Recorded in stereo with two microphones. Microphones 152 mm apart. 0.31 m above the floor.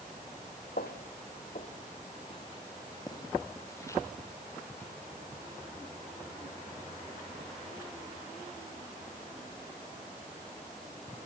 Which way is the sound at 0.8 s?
75° left (ahead or behind).